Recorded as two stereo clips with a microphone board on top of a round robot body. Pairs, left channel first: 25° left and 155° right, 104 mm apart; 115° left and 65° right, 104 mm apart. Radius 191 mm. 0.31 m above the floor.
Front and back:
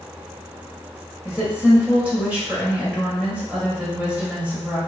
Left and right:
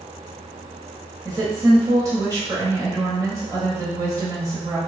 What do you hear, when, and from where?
1.2 s a woman speaking: 90° right, 1.3 m